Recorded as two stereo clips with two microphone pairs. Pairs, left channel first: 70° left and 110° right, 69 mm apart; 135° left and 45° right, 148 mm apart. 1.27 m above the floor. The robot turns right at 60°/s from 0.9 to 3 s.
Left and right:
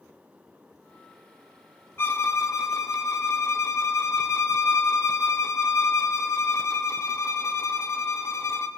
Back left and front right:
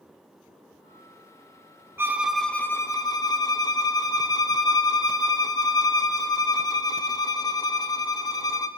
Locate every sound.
2.0 s a violin: 25° left, 0.6 m; by 8.7 s 85° left, 0.6 m